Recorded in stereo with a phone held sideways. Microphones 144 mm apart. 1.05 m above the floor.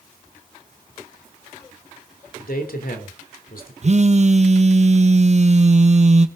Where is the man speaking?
70° left (ahead or behind), 3 m.